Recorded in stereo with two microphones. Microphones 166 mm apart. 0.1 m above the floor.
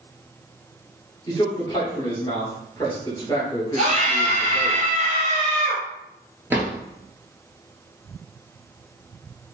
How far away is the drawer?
About 0.9 m.